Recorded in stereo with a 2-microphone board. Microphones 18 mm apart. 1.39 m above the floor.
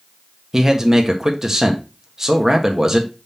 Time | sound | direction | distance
0.5 | a man speaking | 25° right (ahead or behind) | 1.3 m